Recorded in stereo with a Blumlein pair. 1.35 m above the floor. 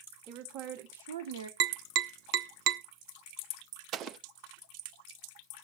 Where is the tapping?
40° right, 0.7 m.